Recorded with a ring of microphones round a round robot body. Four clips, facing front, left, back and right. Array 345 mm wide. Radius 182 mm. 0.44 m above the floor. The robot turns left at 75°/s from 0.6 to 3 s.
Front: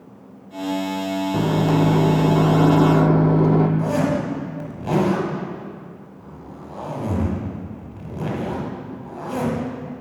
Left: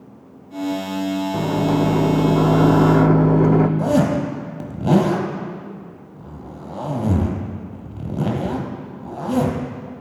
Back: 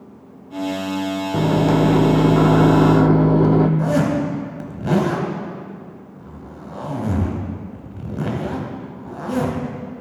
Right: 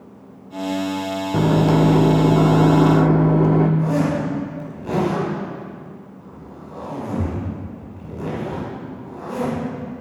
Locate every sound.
1.3 s a microwave: 115° right, 0.6 m; by 3.7 s 120° left, 0.6 m
3.8 s a zipper: 110° left, 1.1 m